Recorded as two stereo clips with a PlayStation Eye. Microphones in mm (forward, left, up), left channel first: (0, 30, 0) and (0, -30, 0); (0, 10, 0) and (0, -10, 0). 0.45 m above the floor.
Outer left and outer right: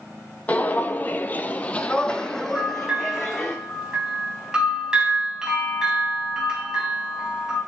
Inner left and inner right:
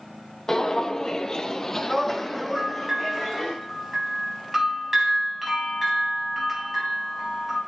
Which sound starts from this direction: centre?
A bell, at 2.5 s.